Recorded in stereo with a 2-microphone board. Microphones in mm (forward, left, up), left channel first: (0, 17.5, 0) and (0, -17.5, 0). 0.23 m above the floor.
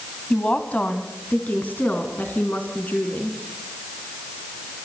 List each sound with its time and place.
0.3 s a woman speaking: 35° left (ahead or behind), 1.5 m; by 3.4 s 65° left (ahead or behind), 3 m